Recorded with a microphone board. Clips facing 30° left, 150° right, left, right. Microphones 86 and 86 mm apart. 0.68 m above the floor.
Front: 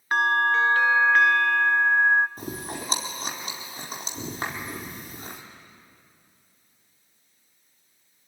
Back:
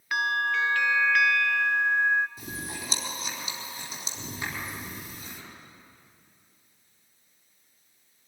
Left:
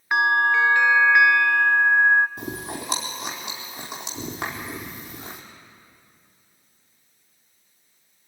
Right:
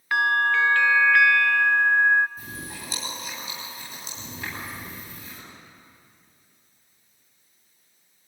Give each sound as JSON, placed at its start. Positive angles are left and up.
{"t": 0.1, "sound": "a bell", "azimuth_deg": 35, "distance_m": 0.5}
{"t": 2.4, "sound": "chewing", "azimuth_deg": 70, "distance_m": 4.0}